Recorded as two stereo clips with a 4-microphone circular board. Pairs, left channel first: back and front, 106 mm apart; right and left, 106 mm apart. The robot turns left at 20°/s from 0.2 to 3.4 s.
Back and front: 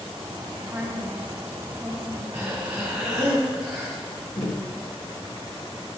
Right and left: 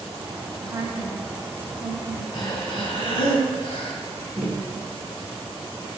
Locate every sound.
0.6 s a woman speaking: 50° left, 1.2 m; by 2.2 s 20° left, 1.2 m
2.3 s breathing: 65° right, 2.0 m; by 3.9 s 85° right, 2.0 m
4.4 s tapping: 160° left, 1.3 m